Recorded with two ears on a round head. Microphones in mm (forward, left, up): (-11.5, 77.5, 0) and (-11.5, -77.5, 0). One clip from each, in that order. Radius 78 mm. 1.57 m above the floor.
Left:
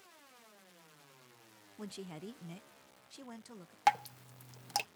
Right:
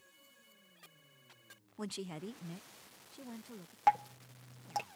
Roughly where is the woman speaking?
Right.